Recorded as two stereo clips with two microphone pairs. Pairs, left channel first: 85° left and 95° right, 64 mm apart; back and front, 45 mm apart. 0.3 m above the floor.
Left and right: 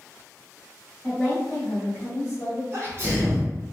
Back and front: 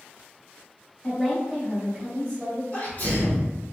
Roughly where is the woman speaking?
Behind.